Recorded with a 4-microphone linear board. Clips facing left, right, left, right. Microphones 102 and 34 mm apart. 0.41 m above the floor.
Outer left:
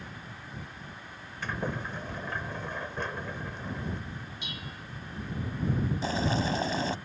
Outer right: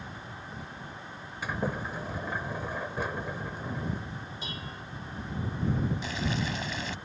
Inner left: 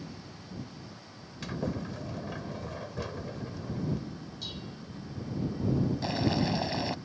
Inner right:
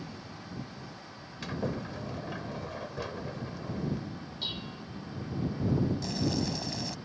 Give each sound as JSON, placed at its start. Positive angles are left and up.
{"t": 1.4, "sound": "a sliding door", "side_deg": -10}
{"t": 4.4, "sound": "dishes clattering", "side_deg": -35}
{"t": 6.0, "sound": "boiling", "side_deg": 35}